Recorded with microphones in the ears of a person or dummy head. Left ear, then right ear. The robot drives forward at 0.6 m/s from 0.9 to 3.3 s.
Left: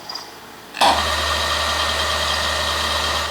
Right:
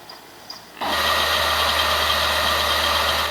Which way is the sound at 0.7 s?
50° left (ahead or behind).